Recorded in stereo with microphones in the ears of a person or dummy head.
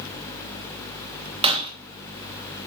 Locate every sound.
1.4 s breaking glass: 25° right (ahead or behind), 1.3 m